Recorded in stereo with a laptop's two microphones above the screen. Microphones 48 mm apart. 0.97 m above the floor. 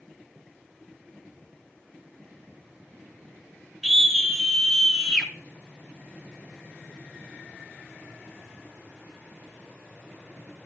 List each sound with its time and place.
3.8 s a scream: centre (ahead or behind), 4.5 m; by 5.3 s 5° left (ahead or behind), 5 m